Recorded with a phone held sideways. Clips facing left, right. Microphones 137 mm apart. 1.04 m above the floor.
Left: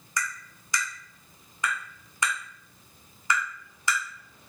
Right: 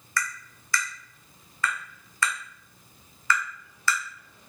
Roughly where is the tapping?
Centre.